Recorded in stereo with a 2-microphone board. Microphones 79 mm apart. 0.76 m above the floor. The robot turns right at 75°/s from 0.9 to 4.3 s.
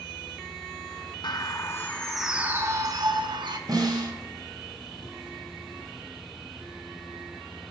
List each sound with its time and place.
1.2 s a bird: 110° left, 0.7 m; by 3.6 s 75° right, 0.7 m
3.7 s a snare drum: 120° right, 2.5 m; by 4.1 s 90° right, 2.5 m